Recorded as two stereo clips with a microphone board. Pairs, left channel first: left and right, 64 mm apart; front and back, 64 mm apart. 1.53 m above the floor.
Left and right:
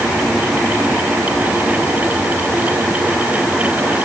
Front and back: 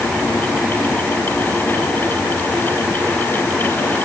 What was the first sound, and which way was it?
Only background noise.